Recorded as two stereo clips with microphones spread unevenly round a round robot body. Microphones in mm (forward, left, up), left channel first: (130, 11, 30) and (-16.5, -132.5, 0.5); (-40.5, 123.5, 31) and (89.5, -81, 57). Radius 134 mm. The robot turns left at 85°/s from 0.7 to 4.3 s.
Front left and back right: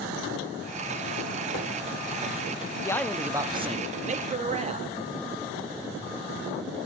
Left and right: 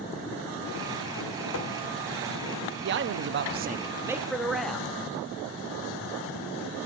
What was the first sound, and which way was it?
Tapping, 95° left.